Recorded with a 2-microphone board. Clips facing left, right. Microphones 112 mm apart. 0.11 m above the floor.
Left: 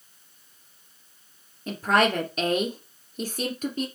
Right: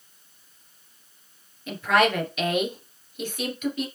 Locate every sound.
1.7 s a woman speaking: 40° left (ahead or behind), 1.8 m